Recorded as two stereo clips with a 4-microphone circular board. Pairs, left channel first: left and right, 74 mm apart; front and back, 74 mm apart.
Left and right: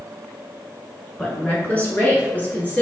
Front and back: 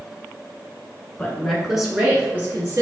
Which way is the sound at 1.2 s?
35° left.